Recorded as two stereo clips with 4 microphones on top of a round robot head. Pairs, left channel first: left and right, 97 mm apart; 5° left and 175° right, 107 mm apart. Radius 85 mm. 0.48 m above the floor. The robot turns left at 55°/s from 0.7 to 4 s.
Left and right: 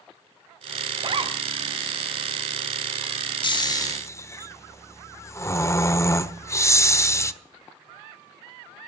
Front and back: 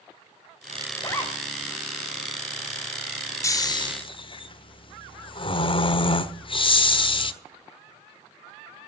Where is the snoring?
65° left, 1.2 m; by 7.3 s 35° left, 1.2 m.